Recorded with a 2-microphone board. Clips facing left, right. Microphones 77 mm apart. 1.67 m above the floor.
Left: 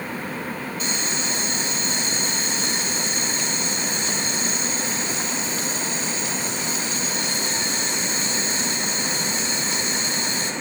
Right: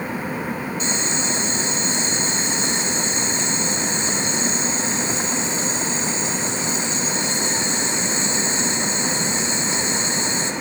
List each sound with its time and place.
0.8 s boiling: 25° right (ahead or behind), 2 m